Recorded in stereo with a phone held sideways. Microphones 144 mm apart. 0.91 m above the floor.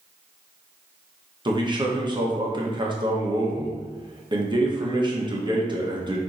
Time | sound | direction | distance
1.4 | a man speaking | 30° right (ahead or behind) | 0.9 m